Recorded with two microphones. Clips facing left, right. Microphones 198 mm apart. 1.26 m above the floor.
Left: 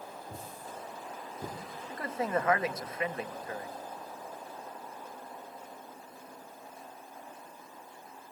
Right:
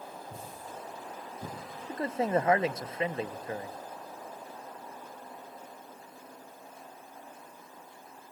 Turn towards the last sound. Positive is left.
turn(degrees=-25)  # may be behind; listen again after turning